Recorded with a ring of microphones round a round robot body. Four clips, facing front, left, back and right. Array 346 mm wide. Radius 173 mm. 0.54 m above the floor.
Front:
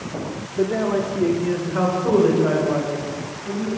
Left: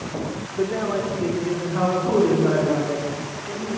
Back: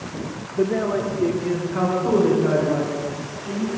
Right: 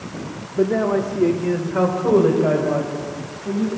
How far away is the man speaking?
About 0.9 m.